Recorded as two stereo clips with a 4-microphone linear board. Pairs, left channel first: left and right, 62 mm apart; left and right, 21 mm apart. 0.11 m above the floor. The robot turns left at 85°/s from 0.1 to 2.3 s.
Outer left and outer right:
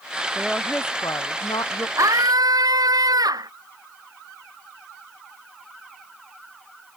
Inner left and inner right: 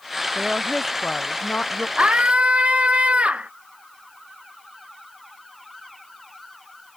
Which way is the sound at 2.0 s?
55° right (ahead or behind).